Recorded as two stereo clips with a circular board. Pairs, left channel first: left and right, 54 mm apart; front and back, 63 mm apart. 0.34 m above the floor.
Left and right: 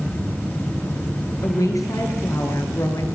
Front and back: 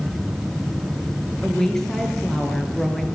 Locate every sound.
1.4 s a woman speaking: 85° left, 4.5 m